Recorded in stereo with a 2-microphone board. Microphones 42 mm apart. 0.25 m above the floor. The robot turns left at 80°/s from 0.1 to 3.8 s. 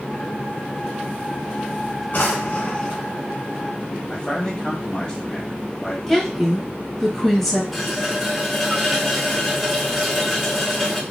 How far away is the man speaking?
About 1.2 m.